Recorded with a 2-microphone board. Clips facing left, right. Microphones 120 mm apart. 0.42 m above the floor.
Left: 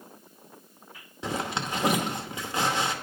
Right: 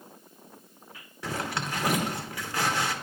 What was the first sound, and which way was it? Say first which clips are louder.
A zipper: left 2 dB; 20° left (ahead or behind).